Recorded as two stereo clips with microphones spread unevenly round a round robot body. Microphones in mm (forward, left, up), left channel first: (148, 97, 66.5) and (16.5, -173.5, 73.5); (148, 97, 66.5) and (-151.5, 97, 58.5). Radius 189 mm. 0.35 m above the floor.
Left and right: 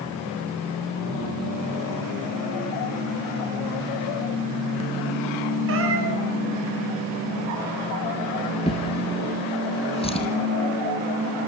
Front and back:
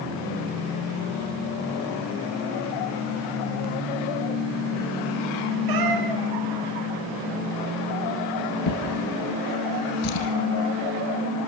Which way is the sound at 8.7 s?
10° right.